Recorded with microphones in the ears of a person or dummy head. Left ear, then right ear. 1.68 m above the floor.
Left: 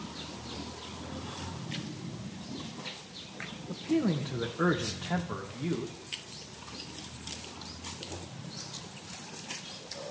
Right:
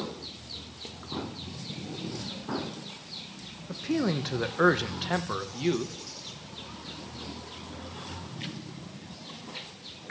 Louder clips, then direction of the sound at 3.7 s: Right 1 dB; 70° right (ahead or behind).